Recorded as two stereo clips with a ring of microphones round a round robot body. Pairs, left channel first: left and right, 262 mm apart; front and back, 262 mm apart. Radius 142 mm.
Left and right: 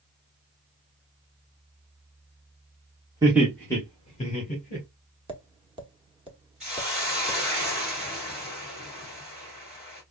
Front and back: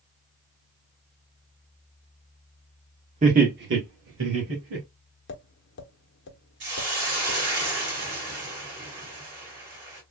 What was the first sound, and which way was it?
Laughter, 155° right.